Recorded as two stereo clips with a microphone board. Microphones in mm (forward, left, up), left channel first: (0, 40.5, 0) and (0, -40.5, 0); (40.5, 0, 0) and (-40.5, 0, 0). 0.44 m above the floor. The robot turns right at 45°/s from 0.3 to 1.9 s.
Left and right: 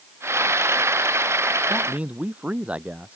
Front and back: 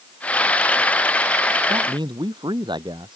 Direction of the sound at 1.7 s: 170° right.